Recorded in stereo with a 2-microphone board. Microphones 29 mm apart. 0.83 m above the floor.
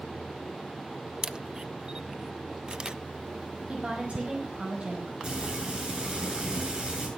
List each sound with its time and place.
1.2 s a camera shutter: 30° right (ahead or behind), 0.8 m
3.7 s a woman speaking: 45° right (ahead or behind), 5.5 m
5.2 s frying: 35° right (ahead or behind), 8.5 m